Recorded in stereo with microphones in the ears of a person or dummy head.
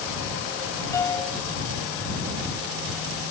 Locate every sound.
0.9 s a piano: 15° left (ahead or behind)